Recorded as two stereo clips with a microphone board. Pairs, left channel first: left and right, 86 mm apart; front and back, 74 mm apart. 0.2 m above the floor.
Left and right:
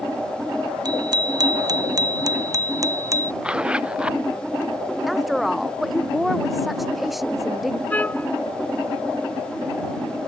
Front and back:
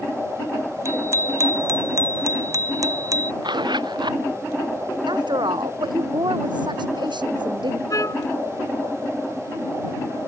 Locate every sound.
0.8 s a bicycle bell: 130° right; by 3.3 s 140° right
3.4 s a zipper: 170° right
5.1 s a woman speaking: straight behind
7.9 s a trumpet: 25° left